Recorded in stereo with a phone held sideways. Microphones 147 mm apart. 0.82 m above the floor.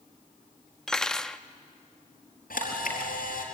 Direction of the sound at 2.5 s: 75° left (ahead or behind).